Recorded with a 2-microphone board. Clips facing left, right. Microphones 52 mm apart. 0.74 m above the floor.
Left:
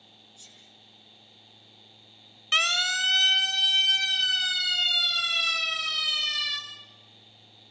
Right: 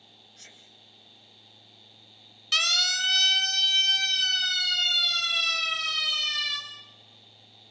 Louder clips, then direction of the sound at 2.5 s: Left 2 dB; 25° left (ahead or behind).